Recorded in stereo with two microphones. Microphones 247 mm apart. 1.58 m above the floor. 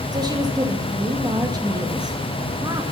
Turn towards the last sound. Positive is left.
turn(degrees=-15)  # may be behind; listen again after turning